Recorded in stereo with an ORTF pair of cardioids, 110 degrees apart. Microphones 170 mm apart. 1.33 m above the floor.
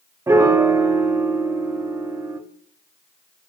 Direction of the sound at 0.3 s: 15° right.